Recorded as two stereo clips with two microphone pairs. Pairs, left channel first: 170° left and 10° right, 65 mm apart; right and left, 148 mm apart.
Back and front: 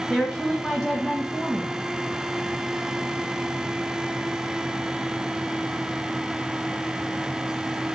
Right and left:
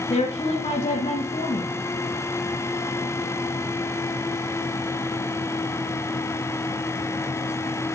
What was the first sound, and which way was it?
A woman speaking, 105° right.